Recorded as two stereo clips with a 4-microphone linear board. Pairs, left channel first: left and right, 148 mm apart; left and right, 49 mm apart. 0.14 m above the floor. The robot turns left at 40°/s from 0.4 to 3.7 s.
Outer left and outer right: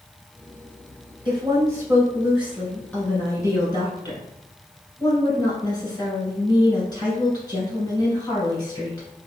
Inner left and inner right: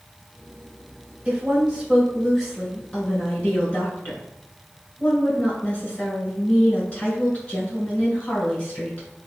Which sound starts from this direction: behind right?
A woman speaking, at 1.2 s.